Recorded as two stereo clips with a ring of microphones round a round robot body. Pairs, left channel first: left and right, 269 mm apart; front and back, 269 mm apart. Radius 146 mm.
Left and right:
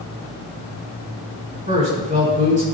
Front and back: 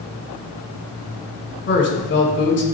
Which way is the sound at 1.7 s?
30° right.